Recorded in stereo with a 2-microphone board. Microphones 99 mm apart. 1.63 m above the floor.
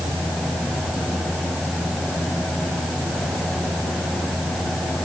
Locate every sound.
Only background noise.